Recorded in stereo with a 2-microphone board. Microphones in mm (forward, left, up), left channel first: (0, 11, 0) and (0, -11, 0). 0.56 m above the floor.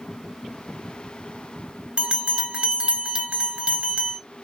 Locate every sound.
2.0 s a bell: 55° right (ahead or behind), 1.3 m